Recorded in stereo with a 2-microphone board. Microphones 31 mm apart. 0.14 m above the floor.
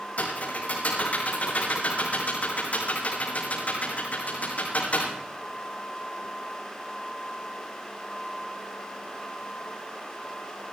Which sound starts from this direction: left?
Typing on a keyboard, at 0.2 s.